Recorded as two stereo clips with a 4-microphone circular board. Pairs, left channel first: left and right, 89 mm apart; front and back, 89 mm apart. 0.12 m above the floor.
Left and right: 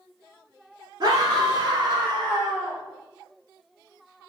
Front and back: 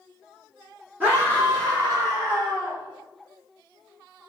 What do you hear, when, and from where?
1.0 s a scream: 120° right, 1.9 m; by 2.8 s 155° right, 2.5 m